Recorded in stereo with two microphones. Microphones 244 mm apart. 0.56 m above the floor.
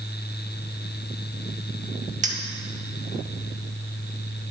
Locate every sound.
2.2 s a clink: 30° right (ahead or behind), 0.8 m